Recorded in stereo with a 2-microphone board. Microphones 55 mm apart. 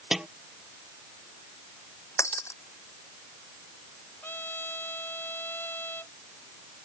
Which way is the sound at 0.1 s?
10° right (ahead or behind).